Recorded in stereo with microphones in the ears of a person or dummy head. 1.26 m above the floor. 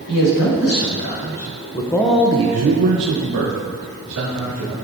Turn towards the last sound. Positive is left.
turn(degrees=-85)